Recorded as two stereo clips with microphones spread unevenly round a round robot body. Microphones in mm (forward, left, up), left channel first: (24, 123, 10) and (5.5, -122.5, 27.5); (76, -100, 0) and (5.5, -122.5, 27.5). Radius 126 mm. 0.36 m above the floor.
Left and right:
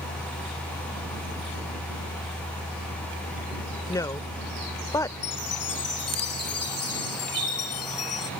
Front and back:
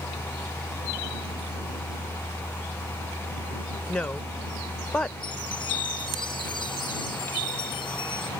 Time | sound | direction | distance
3.9 | a woman speaking | 25° left | ?
5.2 | a chime | 55° left | ?